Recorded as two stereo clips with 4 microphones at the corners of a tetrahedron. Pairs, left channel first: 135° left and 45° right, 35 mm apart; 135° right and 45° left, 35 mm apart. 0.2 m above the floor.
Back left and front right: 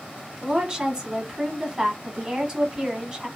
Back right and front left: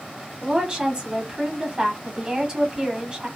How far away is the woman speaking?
About 1.1 m.